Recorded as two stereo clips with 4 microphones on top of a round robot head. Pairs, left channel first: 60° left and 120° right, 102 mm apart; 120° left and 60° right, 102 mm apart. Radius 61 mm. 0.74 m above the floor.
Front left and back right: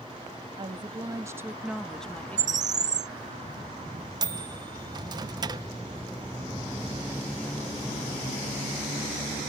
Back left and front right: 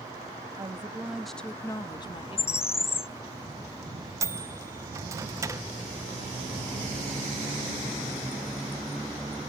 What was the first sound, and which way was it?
A woman speaking, 105° right.